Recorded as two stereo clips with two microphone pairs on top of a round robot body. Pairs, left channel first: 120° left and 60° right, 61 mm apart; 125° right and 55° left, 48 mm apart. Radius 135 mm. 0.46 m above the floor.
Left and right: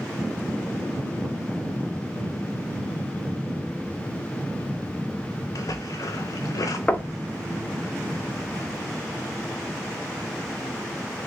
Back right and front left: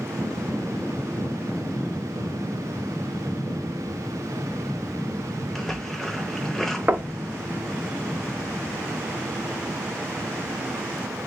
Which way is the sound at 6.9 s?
55° left.